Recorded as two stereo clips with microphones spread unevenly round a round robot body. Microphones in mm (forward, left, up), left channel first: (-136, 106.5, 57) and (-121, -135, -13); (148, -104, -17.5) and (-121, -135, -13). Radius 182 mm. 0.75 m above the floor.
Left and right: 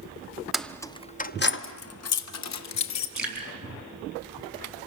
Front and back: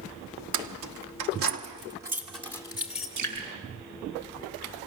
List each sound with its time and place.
0.5 s keys jangling: 170° right, 1.1 m; by 3.1 s 95° left, 1.7 m
3.2 s dripping: 175° right, 5.5 m